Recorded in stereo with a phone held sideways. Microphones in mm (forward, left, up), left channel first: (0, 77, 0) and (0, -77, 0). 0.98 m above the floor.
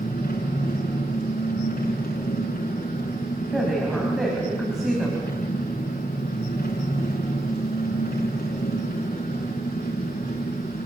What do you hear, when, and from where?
0.0 s an engine running: 85° left, 5.5 m
3.5 s a woman speaking: centre (ahead or behind), 7 m